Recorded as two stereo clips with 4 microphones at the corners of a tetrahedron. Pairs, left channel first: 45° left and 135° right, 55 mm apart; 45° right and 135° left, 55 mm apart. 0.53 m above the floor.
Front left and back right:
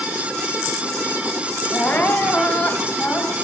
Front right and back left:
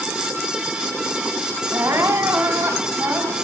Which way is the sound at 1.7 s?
105° left.